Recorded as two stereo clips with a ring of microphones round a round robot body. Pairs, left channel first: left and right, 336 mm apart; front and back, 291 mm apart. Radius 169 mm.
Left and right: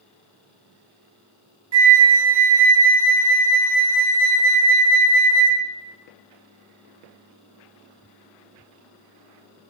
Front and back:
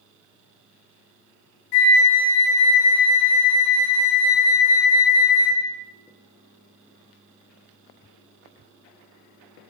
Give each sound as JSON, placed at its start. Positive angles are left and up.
{"t": 1.7, "sound": "a flute", "azimuth_deg": -45, "distance_m": 0.9}